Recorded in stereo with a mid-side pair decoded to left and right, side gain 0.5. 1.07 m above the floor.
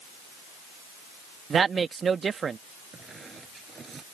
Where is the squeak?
35° right.